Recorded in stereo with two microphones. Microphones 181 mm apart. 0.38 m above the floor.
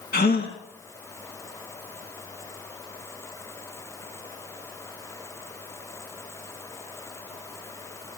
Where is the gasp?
65° left (ahead or behind), 3 m.